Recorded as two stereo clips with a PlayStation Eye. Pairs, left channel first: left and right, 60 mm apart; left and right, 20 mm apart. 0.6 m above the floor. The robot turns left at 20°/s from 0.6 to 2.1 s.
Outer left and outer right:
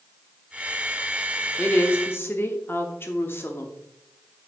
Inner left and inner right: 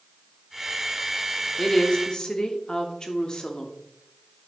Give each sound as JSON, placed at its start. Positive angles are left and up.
{"t": 1.6, "sound": "a woman speaking", "side_deg": 35, "distance_m": 1.1}